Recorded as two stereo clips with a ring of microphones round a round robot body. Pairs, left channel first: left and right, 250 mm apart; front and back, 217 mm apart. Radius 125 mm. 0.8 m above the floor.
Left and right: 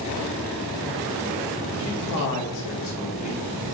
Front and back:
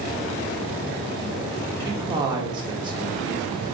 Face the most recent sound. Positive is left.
turn(degrees=110)